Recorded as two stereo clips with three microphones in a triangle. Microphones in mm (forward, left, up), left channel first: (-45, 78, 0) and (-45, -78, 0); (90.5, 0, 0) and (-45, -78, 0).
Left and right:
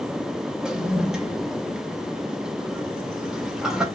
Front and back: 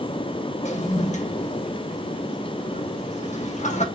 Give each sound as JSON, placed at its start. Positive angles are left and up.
{"t": 0.6, "sound": "a toilet flushing", "azimuth_deg": -5, "distance_m": 0.8}